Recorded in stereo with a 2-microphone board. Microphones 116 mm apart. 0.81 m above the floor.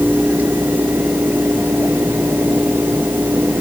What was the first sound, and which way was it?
Only background noise.